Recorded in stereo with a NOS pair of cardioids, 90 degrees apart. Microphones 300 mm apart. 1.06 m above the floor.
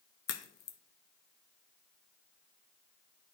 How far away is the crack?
About 0.8 m.